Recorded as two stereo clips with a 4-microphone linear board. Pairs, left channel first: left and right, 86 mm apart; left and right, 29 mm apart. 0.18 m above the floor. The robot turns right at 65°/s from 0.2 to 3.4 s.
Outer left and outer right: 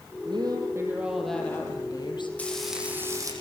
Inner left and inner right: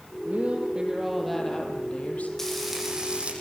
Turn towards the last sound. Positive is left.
turn(degrees=-130)